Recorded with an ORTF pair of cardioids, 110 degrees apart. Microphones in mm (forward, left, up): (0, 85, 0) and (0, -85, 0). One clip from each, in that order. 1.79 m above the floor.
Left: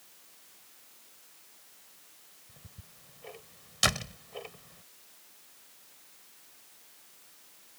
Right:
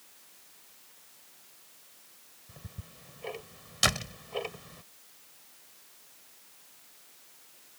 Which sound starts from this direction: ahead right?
Ticking, at 2.5 s.